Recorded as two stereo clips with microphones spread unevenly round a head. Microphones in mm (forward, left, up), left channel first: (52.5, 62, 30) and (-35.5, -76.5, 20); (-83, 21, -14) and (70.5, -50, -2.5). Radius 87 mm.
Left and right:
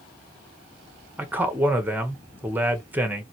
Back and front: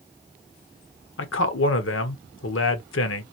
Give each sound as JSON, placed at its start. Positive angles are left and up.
{"t": 1.2, "sound": "a man speaking", "azimuth_deg": 160, "distance_m": 0.9}